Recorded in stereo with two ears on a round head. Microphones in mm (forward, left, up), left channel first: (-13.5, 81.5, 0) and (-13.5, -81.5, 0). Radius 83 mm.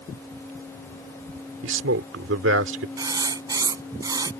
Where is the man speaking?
70° right (ahead or behind).